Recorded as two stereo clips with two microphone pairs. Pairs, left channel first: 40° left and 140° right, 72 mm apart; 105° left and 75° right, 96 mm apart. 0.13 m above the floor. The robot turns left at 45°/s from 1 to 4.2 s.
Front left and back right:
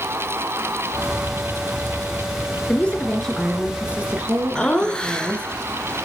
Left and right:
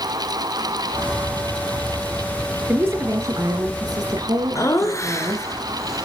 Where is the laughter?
110° left, 1.3 m.